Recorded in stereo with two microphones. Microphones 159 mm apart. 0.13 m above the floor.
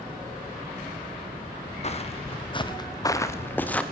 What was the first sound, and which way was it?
Footsteps, 45° left (ahead or behind).